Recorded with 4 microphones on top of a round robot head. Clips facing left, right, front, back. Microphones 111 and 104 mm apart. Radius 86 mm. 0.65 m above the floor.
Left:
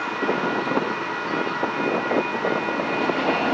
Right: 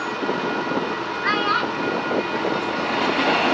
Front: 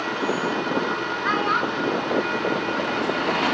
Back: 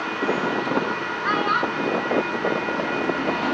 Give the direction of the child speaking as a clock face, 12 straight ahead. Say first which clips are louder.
Right 3 dB, back 1 dB; 3 o'clock.